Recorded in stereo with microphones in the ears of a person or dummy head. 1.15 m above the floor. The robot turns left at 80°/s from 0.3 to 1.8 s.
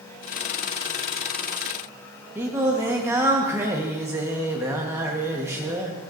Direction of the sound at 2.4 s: 10° right (ahead or behind).